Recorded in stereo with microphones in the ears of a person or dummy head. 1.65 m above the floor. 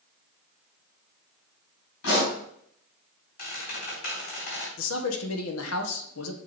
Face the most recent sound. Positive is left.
turn(degrees=85)